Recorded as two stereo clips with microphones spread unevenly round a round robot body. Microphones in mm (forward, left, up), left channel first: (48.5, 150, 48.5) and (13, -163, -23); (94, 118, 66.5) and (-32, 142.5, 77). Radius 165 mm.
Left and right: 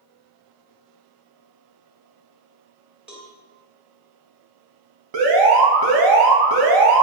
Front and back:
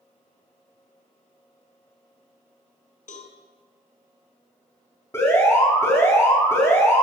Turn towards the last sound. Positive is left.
turn(degrees=-85)